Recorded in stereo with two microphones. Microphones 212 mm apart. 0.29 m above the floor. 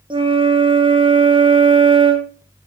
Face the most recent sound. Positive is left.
turn(degrees=-25)  # may be behind; listen again after turning